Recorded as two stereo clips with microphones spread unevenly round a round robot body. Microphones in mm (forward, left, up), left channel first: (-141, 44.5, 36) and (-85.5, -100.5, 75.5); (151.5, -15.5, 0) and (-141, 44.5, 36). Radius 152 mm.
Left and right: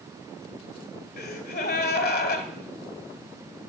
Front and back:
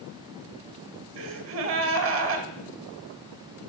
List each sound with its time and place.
1.2 s a gasp: 120° left, 1.1 m